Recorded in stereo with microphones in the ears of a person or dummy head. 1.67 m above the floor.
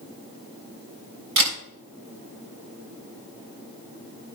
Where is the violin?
No violin in this recording.